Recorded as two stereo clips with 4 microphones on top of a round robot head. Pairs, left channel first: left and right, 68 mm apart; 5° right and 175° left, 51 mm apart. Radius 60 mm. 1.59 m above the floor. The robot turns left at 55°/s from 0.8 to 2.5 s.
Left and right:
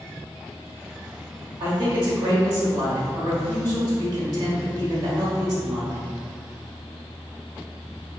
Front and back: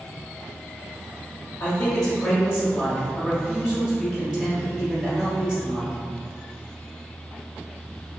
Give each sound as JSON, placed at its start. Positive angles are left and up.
{"t": 1.6, "sound": "a man speaking", "azimuth_deg": -55, "distance_m": 0.9}